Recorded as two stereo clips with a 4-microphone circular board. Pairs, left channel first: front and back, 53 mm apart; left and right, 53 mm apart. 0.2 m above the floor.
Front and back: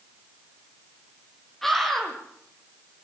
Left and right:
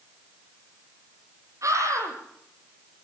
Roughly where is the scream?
Right.